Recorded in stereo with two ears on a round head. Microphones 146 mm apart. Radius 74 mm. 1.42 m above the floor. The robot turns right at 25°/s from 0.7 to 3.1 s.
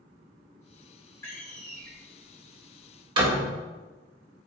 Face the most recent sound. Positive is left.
turn(degrees=-30)  # may be behind; listen again after turning